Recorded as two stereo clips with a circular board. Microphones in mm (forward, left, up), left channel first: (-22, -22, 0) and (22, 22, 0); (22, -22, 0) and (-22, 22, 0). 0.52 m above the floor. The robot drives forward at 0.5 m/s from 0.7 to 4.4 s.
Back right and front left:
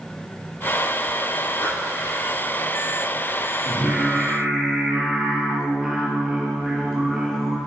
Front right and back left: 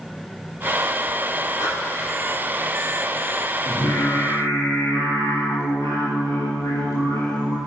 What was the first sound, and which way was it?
Breathing, 80° right.